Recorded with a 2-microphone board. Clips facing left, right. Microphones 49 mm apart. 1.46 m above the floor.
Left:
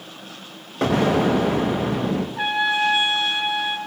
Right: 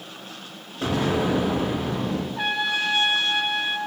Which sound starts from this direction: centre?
A trumpet, at 2.4 s.